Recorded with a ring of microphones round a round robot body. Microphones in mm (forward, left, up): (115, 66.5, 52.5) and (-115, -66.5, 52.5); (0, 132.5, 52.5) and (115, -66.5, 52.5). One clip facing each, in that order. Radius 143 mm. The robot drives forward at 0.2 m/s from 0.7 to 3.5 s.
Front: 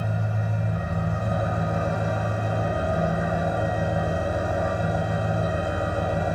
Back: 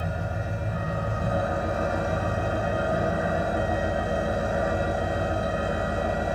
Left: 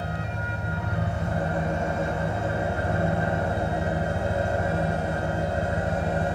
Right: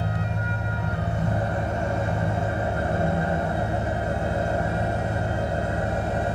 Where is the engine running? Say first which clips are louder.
Front 2 dB, right 3 dB; 100° right, 1.7 m; by 6.4 s 115° right, 1.9 m.